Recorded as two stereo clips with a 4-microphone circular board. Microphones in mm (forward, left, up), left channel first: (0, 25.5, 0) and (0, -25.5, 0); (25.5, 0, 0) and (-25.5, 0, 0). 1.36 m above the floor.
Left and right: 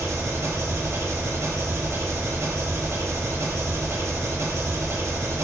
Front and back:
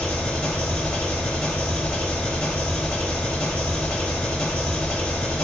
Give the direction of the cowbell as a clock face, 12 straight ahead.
No cowbell in this recording.